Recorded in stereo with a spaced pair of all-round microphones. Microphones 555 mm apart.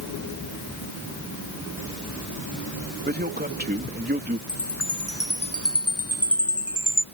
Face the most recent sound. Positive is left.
turn(degrees=25)  # may be behind; listen again after turning